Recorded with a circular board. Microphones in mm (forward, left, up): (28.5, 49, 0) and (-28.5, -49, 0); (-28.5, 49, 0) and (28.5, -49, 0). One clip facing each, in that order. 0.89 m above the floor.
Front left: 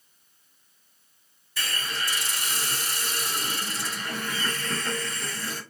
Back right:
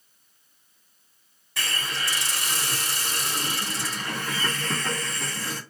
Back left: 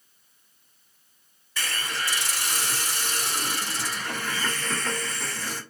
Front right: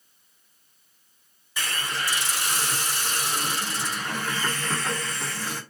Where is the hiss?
135° right, 1.9 m.